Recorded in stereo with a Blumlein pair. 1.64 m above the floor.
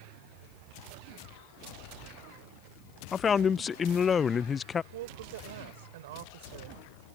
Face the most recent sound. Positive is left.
turn(degrees=-55)